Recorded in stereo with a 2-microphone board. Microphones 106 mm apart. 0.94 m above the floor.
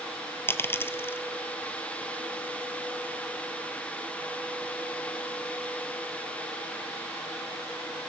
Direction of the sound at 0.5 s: 20° left (ahead or behind).